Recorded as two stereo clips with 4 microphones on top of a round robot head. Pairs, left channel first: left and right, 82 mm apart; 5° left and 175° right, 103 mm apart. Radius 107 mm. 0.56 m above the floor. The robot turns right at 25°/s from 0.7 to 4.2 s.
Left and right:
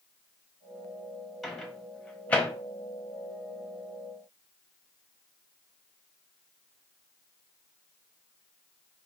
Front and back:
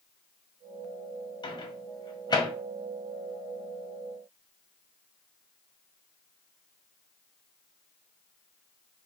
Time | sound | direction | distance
1.4 | a microwave | straight ahead | 0.8 m